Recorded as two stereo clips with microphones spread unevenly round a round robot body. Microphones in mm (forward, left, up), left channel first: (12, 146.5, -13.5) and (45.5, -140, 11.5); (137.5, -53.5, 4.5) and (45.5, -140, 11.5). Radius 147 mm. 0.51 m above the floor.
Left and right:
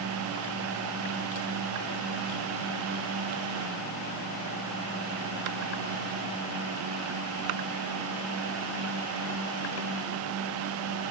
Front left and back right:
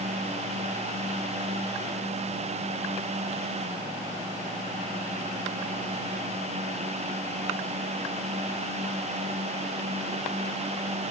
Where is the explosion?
I don't hear an explosion.